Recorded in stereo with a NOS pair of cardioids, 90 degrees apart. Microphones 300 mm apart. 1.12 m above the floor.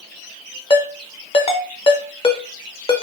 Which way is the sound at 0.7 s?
20° left.